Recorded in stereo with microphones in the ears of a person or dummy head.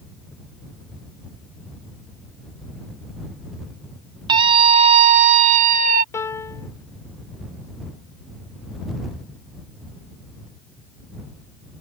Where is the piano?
20° left (ahead or behind).